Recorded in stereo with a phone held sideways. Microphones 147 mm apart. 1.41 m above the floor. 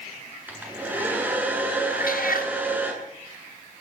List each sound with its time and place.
0.5 s a hair dryer: 10° right (ahead or behind), 8.5 m
1.9 s a cat meowing: 80° left, 5 m